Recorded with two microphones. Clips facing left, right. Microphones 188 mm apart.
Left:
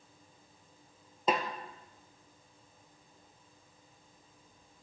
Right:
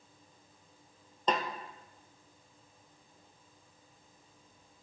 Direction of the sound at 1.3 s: 10° left (ahead or behind).